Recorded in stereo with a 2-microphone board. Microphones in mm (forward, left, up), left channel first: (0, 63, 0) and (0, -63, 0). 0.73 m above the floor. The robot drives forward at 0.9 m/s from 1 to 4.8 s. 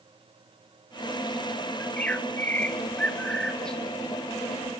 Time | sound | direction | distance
1.8 | a bird | 10° left (ahead or behind) | 0.8 m